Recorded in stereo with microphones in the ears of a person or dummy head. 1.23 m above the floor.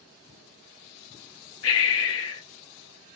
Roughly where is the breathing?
Left.